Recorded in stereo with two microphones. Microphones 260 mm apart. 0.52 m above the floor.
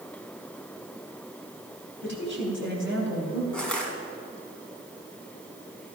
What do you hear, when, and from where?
2.0 s a woman speaking: 45° right (ahead or behind), 4 m
3.5 s crushing: 5° left (ahead or behind), 2.5 m